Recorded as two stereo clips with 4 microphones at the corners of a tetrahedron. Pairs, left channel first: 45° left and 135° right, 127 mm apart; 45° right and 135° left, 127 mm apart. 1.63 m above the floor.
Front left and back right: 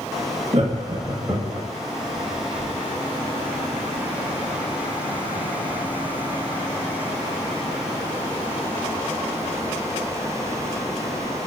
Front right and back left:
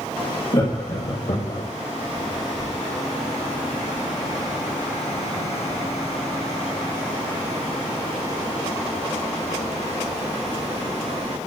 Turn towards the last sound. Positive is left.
turn(degrees=-65)